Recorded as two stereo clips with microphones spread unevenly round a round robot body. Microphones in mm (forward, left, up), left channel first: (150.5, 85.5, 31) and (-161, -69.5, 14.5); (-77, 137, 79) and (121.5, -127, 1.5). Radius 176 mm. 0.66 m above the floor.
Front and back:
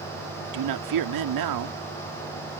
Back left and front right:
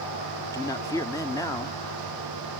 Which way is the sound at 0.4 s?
145° right.